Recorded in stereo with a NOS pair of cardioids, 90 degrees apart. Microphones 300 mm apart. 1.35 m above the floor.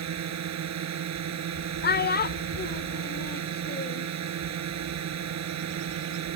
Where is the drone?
60° right.